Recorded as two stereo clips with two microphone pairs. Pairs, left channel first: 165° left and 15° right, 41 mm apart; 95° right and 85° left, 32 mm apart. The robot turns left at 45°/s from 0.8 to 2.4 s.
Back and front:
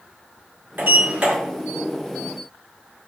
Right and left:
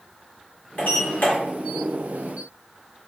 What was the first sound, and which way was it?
A sliding door, 55° right.